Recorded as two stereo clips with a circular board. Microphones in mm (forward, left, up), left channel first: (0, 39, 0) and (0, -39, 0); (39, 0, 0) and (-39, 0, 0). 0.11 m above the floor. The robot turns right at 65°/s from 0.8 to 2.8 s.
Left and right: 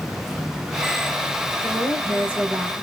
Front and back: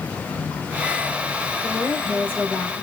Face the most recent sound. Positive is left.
turn(degrees=-10)